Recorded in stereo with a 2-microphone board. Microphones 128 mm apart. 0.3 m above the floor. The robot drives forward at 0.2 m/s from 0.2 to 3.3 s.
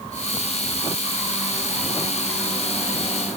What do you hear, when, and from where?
Only background noise.